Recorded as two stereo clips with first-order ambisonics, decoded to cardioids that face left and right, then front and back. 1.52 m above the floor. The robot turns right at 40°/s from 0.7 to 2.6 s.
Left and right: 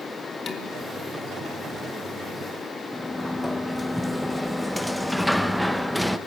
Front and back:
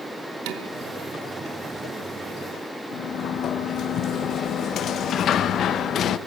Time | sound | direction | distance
0.5 | dishes clattering | 160° left | 2.5 m
2.9 | a sliding door | straight ahead | 0.7 m